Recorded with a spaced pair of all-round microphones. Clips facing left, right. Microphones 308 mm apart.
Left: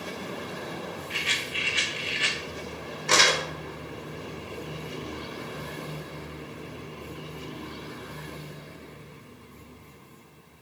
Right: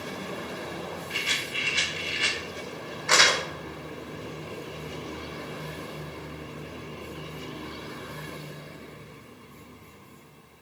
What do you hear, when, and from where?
1.1 s a rattle: 55° right (ahead or behind), 1.7 m
3.1 s crumpling: 40° left (ahead or behind), 2 m